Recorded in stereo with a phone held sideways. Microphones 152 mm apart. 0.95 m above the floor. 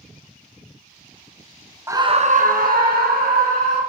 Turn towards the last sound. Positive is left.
turn(degrees=-85)